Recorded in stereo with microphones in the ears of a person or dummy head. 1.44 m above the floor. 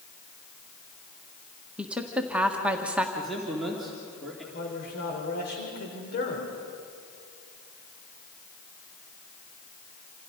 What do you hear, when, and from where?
1.8 s a woman speaking: 10° right (ahead or behind), 1.5 m
3.1 s a man speaking: centre (ahead or behind), 3 m
4.5 s a man speaking: 55° left (ahead or behind), 4 m